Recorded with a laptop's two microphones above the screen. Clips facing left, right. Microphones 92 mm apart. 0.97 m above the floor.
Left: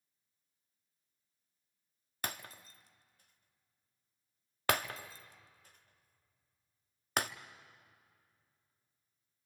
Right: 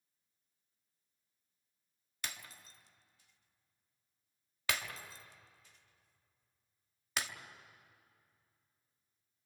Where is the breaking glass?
45° left (ahead or behind), 0.6 m.